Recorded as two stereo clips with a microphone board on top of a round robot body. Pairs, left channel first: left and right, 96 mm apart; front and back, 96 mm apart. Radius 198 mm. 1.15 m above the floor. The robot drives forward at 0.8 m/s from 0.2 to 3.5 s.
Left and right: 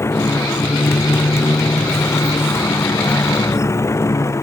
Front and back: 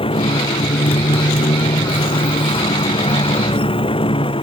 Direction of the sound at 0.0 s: 25° left.